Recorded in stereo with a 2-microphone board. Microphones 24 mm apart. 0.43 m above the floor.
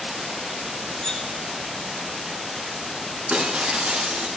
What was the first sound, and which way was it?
Cutlery clinking, 25° left (ahead or behind).